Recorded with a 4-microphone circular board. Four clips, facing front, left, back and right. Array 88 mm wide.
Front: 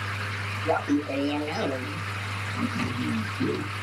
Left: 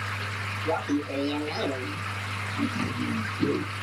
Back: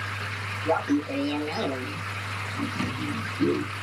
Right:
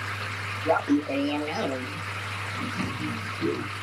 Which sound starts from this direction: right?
Laughter, at 0.7 s.